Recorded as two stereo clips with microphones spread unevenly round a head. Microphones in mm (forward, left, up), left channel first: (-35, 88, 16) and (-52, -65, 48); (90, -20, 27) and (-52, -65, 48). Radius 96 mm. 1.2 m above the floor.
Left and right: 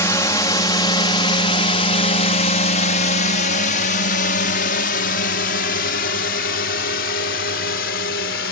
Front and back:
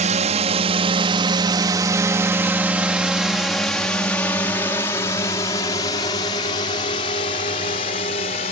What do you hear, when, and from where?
0.0 s a drone: 150° left; by 8.5 s 70° left